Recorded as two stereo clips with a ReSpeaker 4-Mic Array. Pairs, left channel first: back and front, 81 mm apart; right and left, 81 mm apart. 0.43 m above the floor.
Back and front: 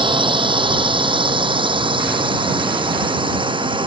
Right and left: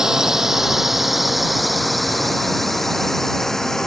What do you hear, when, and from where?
0.0 s a drone: 5° left; by 3.9 s 5° right